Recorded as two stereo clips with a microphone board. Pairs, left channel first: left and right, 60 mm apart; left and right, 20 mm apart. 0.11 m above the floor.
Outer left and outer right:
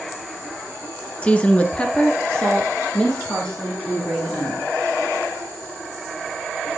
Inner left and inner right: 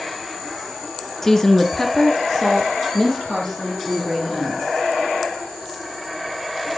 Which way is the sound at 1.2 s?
20° left (ahead or behind).